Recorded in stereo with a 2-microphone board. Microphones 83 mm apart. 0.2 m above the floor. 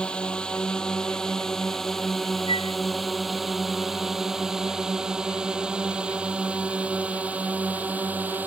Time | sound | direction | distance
0.0 | a drone | 10° left (ahead or behind) | ?
2.5 | a flute | 80° left | ?